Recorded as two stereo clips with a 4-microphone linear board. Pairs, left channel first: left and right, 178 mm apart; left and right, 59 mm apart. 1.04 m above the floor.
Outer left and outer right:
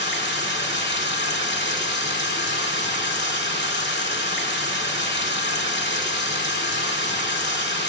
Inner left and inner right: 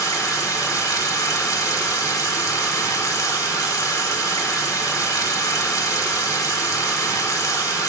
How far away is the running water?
About 1.5 m.